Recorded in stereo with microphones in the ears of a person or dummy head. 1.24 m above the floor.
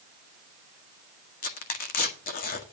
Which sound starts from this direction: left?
Tearing paper, at 1.4 s.